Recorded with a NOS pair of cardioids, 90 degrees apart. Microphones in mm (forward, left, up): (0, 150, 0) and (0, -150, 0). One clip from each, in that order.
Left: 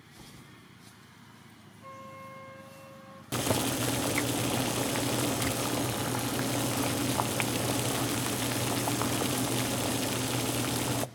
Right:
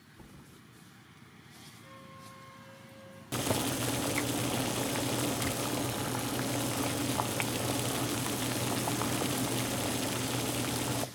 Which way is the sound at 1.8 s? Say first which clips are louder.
Left 9 dB; 70° left.